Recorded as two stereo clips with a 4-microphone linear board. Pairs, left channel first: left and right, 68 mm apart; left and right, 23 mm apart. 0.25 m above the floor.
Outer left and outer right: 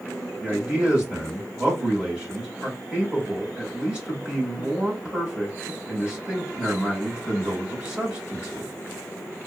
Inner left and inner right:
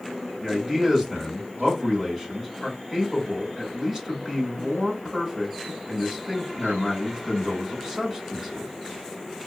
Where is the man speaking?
20° right (ahead or behind), 1.8 m.